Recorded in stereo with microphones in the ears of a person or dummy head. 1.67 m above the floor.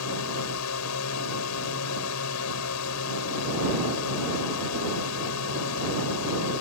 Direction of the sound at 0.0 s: 80° left.